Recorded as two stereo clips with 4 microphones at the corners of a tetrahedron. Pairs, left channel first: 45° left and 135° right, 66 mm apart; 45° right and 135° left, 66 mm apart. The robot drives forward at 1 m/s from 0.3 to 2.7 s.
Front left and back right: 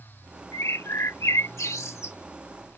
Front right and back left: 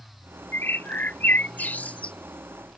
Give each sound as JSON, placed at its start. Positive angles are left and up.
{"t": 0.5, "sound": "a bird", "azimuth_deg": 10}